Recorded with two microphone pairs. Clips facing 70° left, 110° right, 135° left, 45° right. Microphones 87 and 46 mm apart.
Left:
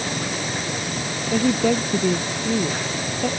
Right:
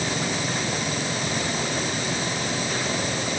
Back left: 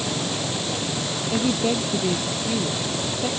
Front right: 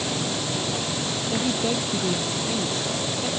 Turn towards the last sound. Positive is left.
turn(degrees=65)